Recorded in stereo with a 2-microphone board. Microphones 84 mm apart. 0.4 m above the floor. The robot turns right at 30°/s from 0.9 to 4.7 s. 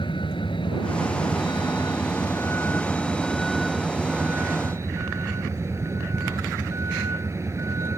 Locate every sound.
0.0 s a vehicle: 100° left; by 8.0 s 145° right